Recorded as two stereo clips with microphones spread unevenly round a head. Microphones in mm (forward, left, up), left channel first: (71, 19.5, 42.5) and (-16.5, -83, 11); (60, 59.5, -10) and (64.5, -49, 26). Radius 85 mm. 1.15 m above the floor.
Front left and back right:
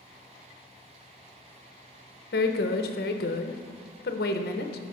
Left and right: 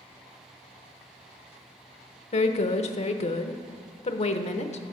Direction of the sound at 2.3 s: 80° left.